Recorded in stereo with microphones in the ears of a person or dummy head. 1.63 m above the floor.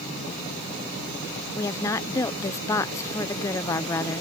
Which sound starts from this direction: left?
A woman speaking, at 1.6 s.